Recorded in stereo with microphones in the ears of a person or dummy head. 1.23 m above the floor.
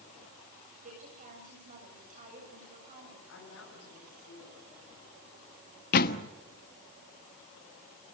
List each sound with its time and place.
0.8 s a woman speaking: 45° right (ahead or behind), 8 m
3.3 s a woman speaking: 85° left, 10 m
5.9 s a door slam: 55° left (ahead or behind), 0.9 m